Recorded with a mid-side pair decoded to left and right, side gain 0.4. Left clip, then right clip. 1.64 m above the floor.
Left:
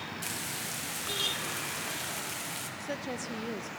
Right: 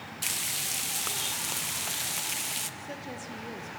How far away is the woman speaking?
About 1.3 m.